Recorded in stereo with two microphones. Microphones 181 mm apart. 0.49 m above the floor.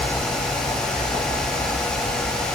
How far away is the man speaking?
I don't hear a man speaking.